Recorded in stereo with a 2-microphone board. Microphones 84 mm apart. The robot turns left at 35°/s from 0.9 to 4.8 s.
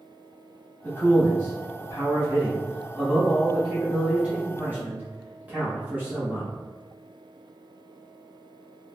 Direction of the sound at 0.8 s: 25° left (ahead or behind).